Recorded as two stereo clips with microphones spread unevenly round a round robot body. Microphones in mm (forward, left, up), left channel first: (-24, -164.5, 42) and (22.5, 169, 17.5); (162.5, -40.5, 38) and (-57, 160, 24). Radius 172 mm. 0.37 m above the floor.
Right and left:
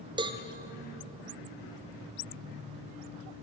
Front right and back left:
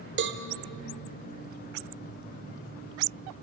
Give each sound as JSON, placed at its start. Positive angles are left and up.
{"t": 0.2, "sound": "a cowbell", "azimuth_deg": 145, "distance_m": 1.4}